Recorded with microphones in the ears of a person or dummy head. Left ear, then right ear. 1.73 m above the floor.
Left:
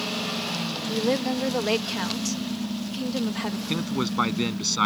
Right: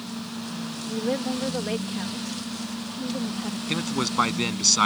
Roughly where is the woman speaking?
Left.